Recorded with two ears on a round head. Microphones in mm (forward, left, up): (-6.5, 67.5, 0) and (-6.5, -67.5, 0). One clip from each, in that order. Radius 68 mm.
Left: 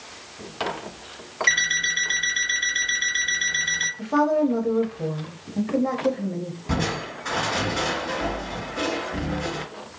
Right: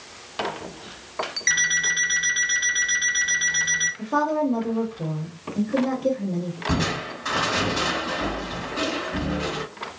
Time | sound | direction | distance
1.5 | an alarm clock | 10° right (ahead or behind) | 2.5 m
4.0 | a woman speaking | 15° left (ahead or behind) | 0.7 m
6.7 | crushing | 15° right (ahead or behind) | 2.5 m